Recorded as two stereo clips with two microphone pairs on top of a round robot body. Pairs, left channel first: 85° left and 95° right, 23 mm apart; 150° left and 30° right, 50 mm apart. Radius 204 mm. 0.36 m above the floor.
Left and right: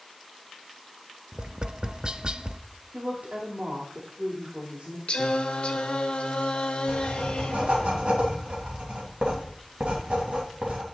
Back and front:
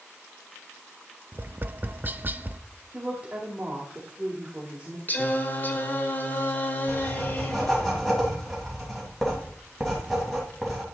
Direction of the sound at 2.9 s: 105° right.